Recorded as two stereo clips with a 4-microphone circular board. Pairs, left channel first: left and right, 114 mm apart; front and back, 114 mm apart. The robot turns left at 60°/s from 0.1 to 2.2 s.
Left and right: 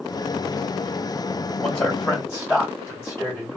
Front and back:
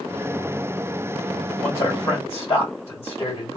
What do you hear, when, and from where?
1.6 s a man speaking: 60° left, 2 m; by 3.6 s 25° left, 2 m